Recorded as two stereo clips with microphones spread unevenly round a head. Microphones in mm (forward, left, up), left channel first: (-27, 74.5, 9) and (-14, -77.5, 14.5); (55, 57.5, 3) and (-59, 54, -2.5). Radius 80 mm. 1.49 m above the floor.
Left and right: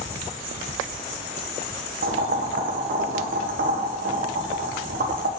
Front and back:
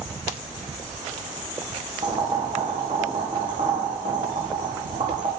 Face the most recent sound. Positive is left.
turn(degrees=-115)